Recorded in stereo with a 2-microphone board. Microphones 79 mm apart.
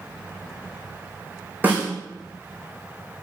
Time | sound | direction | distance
1.6 | a snare drum | 20° right (ahead or behind) | 4.5 m